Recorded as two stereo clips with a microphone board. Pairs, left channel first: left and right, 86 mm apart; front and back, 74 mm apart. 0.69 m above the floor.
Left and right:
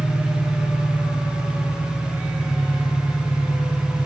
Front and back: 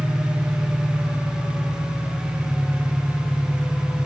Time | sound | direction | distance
0.0 | an engine running | 15° left | 7.5 m